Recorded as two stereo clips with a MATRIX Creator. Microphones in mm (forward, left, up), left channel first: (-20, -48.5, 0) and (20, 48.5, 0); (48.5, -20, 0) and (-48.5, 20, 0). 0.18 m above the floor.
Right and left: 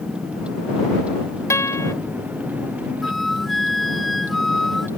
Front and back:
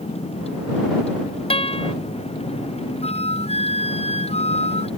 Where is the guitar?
50° right.